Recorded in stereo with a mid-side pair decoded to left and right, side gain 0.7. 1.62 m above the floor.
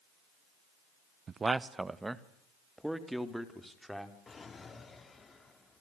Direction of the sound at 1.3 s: 30° right.